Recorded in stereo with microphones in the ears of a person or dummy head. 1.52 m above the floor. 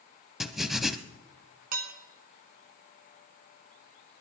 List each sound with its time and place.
0.4 s writing: 5° left (ahead or behind), 0.6 m
1.7 s dishes clattering: 55° right (ahead or behind), 1.4 m